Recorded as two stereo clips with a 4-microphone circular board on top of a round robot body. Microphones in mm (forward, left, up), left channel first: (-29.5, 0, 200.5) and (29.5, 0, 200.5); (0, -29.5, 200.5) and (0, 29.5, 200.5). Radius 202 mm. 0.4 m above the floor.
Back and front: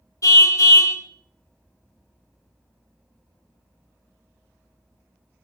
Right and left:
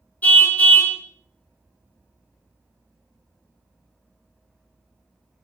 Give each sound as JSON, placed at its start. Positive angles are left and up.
{"t": 0.2, "sound": "a car horn", "azimuth_deg": -155, "distance_m": 3.0}